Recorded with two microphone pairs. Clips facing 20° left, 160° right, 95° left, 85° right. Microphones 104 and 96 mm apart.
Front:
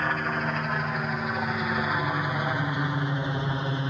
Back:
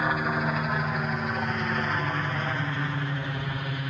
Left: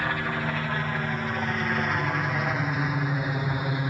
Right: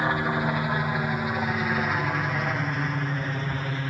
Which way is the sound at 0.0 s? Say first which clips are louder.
Back 1 dB, right 3 dB; 95° right.